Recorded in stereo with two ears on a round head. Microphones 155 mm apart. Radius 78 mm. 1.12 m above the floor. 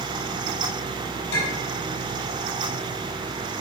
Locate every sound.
1.3 s a clink: 85° left, 4.5 m